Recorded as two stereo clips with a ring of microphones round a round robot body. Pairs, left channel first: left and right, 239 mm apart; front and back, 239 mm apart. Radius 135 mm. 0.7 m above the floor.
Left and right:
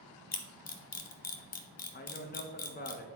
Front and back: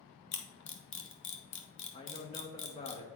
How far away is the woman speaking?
About 1.0 m.